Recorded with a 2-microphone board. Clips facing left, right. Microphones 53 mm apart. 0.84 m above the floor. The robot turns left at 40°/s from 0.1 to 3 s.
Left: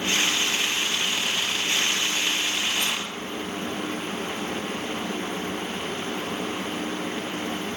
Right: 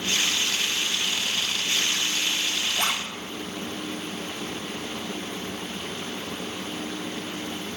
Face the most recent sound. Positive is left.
turn(degrees=-55)  # may be behind; listen again after turning